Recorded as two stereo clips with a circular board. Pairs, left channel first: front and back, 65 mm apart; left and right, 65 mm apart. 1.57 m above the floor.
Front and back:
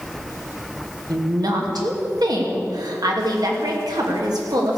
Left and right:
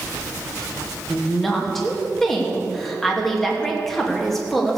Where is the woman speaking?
175° left, 2.5 m.